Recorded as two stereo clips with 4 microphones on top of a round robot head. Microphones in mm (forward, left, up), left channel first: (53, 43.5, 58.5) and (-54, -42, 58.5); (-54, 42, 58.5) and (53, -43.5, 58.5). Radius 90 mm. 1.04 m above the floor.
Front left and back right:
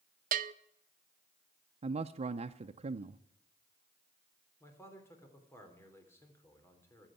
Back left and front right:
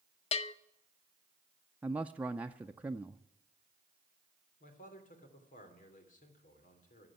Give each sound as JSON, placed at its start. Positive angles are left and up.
{"t": 0.3, "sound": "a bell", "azimuth_deg": -170, "distance_m": 0.5}
{"t": 1.8, "sound": "a man speaking", "azimuth_deg": -115, "distance_m": 0.6}
{"t": 4.6, "sound": "a man speaking", "azimuth_deg": 110, "distance_m": 3.0}